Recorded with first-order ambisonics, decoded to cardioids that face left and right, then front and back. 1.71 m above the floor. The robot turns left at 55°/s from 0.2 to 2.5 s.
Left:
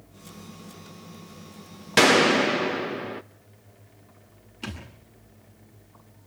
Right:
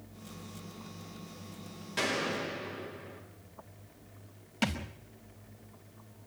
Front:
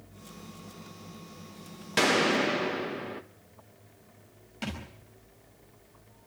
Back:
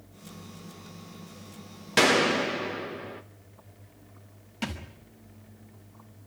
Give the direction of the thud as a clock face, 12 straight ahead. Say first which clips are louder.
Right 5 dB, back 2 dB; 3 o'clock.